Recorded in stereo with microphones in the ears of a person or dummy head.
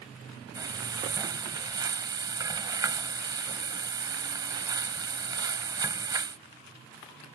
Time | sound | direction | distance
0.6 | frying | 20° right (ahead or behind) | ?